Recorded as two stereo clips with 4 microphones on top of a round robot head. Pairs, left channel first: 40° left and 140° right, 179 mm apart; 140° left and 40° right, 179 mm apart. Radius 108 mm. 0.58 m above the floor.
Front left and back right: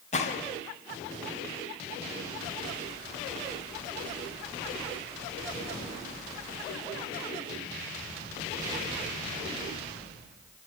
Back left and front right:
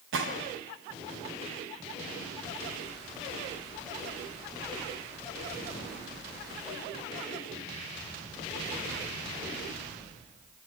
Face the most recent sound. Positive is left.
turn(degrees=-15)